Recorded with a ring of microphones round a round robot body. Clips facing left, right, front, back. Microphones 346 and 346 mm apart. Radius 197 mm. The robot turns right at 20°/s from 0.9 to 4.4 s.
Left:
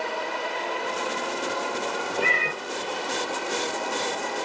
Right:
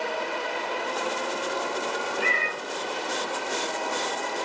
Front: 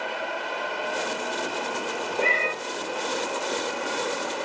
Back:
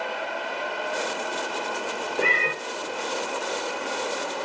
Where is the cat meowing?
115° left, 0.8 m; by 2.5 s 120° left, 0.8 m.